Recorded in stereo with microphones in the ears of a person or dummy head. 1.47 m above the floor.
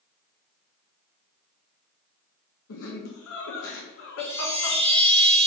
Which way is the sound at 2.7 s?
80° left.